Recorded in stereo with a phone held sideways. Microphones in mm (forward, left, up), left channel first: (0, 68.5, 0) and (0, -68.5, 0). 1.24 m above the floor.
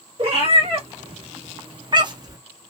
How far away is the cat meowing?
About 1.4 m.